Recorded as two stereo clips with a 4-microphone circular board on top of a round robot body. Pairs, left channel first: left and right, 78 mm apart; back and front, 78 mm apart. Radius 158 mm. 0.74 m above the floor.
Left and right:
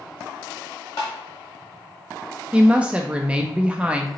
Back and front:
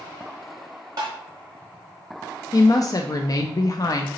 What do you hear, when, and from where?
1.0 s tapping: 45° left, 0.5 m
2.5 s a woman speaking: 160° right, 0.5 m